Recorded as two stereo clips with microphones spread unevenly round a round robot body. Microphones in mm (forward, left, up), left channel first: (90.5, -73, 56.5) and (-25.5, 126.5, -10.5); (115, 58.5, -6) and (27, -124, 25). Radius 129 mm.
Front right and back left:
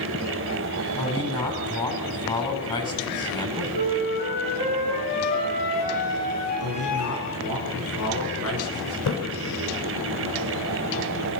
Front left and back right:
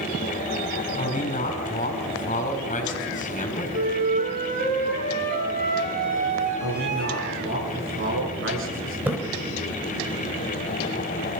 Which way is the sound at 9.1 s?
30° right.